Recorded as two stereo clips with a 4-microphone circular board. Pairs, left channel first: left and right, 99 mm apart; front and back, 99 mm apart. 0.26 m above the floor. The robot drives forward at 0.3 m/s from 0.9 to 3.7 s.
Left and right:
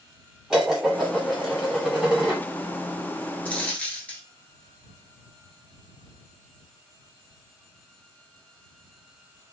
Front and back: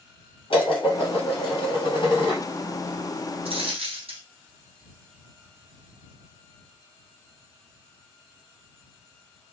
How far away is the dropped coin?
About 0.7 m.